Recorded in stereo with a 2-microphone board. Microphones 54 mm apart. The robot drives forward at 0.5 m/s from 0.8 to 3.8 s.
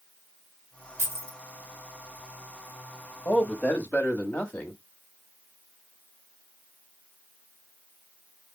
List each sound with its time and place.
1.0 s keys jangling: 55° right (ahead or behind), 1.6 m; by 1.4 s 50° right (ahead or behind), 1.8 m
3.2 s a man speaking: 35° left (ahead or behind), 1.3 m; by 4.8 s 30° left (ahead or behind), 1.5 m